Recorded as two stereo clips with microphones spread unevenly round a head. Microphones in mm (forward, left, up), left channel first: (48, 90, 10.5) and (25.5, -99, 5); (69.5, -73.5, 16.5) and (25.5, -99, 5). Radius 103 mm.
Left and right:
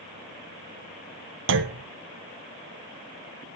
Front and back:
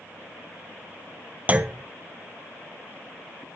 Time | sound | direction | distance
1.5 | a clunk | 95° right | 1.2 m